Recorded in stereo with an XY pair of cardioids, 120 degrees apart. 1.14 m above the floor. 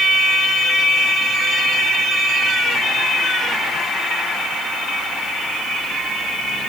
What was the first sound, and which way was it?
Only background noise.